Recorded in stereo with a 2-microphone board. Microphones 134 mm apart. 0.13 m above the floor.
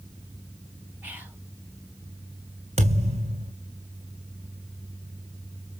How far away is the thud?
About 3 m.